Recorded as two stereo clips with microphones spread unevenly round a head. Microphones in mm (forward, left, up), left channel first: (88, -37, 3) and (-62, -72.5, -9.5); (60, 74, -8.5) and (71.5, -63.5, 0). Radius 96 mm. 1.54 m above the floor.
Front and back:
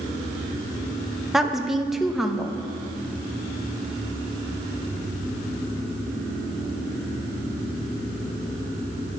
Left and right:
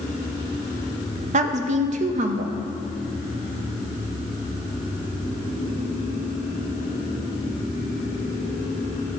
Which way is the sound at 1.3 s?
75° right.